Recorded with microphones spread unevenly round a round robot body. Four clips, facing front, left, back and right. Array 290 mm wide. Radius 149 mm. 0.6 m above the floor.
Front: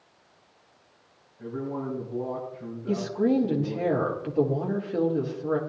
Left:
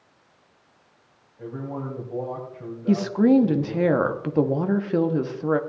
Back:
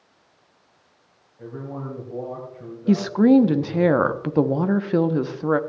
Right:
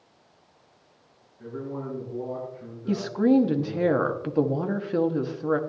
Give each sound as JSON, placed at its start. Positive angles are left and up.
{"t": 1.4, "sound": "a man speaking", "azimuth_deg": 125, "distance_m": 3.0}
{"t": 2.9, "sound": "a woman speaking", "azimuth_deg": 165, "distance_m": 1.0}